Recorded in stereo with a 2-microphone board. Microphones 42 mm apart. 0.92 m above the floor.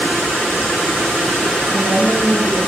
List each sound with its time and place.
1.7 s a woman speaking: 45° right (ahead or behind), 2.5 m